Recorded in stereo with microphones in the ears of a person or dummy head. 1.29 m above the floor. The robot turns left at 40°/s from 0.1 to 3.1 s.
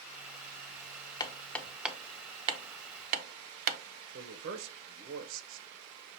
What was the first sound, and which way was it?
Hammering, 25° left (ahead or behind).